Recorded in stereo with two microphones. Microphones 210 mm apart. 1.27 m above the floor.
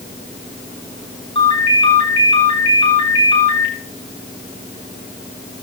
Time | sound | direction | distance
1.4 | a ringtone | 25° left (ahead or behind) | 9.5 m